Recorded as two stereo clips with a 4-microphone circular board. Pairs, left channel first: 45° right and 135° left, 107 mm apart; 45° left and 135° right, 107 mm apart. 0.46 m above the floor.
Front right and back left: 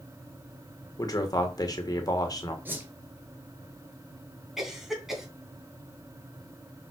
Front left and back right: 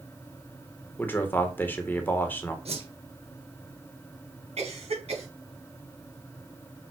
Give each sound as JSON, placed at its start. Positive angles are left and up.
{"t": 1.0, "sound": "a man speaking", "azimuth_deg": -15, "distance_m": 1.6}
{"t": 2.6, "sound": "a whoosh", "azimuth_deg": -155, "distance_m": 1.8}
{"t": 4.6, "sound": "a cough", "azimuth_deg": -140, "distance_m": 3.5}